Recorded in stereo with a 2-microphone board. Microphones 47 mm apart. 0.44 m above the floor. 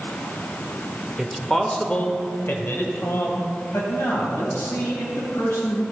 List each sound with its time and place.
1.2 s a man speaking: 5° right (ahead or behind), 1.7 m; by 5.8 s 75° left (ahead or behind), 5.5 m